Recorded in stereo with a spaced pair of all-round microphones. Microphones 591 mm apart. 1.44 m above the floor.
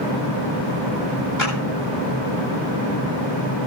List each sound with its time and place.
1.4 s a clap: 30° left (ahead or behind), 9.5 m